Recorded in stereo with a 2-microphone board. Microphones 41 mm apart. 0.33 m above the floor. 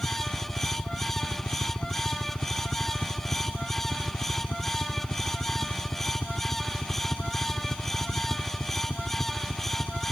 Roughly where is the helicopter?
Left.